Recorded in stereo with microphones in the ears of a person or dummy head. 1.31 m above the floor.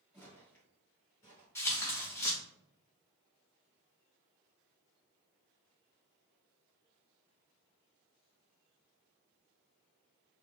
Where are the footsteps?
15° left (ahead or behind), 1.6 m.